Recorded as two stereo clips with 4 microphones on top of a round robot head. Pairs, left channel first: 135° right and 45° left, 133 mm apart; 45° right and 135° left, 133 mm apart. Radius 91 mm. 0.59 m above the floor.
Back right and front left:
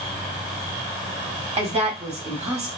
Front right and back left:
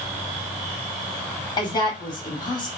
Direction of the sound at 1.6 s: 10° left.